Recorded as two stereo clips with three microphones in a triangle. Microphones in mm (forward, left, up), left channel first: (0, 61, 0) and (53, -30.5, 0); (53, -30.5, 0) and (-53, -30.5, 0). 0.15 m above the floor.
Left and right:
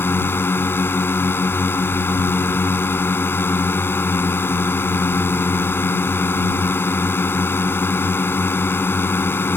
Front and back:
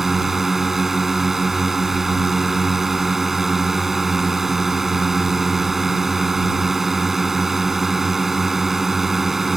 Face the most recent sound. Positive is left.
turn(degrees=95)